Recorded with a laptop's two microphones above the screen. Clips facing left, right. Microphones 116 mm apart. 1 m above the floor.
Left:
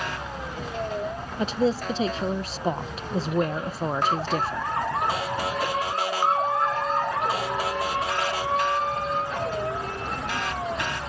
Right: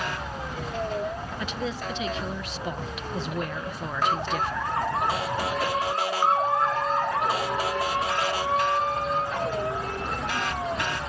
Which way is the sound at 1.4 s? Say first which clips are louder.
Left 10 dB; 35° left (ahead or behind).